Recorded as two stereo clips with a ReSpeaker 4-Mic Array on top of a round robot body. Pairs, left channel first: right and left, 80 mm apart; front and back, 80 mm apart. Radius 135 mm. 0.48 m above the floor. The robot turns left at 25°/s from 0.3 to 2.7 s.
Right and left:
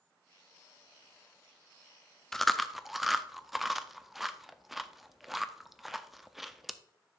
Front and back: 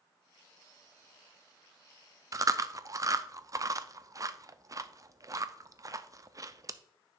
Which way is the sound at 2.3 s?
175° right.